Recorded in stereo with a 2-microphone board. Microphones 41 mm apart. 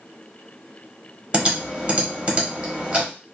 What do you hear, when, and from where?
1.3 s typing on a keyboard: 30° right (ahead or behind), 1.0 m